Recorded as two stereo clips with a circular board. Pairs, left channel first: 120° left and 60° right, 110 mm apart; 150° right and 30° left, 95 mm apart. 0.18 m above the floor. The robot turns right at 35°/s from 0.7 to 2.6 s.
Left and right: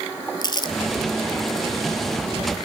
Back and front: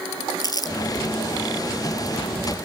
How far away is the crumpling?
About 1.0 m.